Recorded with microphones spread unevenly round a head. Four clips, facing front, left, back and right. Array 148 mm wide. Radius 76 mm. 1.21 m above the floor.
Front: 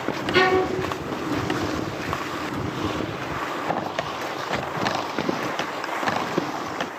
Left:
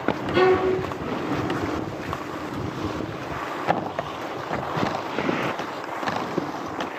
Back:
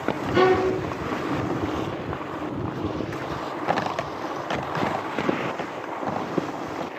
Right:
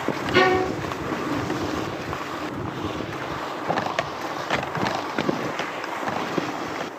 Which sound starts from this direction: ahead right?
A violin, at 0.3 s.